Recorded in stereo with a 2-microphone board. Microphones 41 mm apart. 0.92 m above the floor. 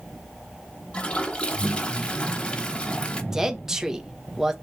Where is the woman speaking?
10° right (ahead or behind), 0.8 m.